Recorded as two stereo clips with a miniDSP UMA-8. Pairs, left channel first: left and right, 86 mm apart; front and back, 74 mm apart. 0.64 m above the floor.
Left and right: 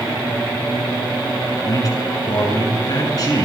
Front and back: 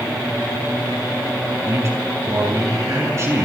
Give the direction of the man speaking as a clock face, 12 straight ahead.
8 o'clock.